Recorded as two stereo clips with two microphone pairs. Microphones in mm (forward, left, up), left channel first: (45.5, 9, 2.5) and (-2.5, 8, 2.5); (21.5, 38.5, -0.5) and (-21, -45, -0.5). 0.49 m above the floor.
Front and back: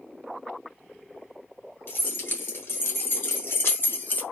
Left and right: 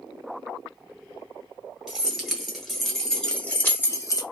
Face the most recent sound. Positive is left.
turn(degrees=30)